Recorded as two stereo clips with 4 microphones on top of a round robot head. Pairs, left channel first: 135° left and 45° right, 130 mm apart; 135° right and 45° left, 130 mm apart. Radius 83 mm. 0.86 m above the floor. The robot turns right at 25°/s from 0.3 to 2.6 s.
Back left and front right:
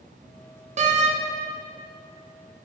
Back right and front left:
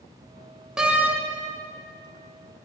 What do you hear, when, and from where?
0.8 s a door slam: 40° right, 0.7 m; by 1.2 s 30° right, 0.7 m